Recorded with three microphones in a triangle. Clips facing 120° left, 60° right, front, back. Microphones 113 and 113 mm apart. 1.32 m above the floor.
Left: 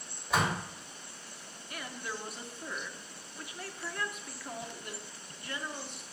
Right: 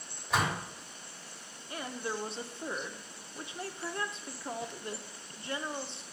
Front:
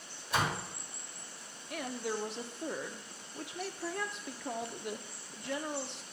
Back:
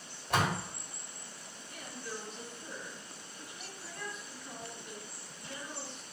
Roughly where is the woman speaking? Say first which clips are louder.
Right 4 dB, front 8 dB; ahead.